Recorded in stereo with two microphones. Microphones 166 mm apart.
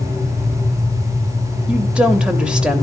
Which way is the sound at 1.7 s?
5° right (ahead or behind).